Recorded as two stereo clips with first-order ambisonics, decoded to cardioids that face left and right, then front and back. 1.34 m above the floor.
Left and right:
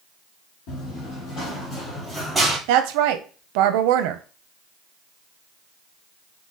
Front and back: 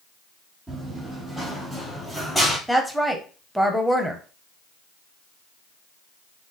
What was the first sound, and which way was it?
Running footsteps, 95° left.